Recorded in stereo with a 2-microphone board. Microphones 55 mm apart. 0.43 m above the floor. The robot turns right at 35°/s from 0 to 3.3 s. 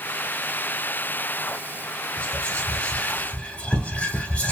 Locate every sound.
2.2 s whispering: 20° left (ahead or behind), 0.9 m; by 4.5 s 25° left (ahead or behind), 0.9 m